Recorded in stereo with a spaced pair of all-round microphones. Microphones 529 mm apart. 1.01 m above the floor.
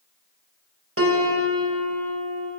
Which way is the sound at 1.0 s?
25° right (ahead or behind).